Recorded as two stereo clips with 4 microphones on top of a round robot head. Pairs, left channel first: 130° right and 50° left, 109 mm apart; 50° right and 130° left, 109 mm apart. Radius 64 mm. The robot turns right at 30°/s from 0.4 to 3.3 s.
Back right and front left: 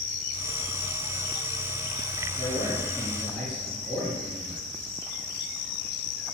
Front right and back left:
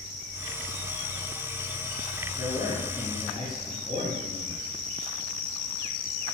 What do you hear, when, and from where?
2.4 s a man speaking: 70° right, 2 m; by 4.7 s 40° right, 2 m